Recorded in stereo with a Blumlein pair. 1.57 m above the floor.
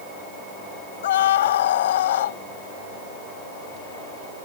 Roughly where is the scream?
Ahead left.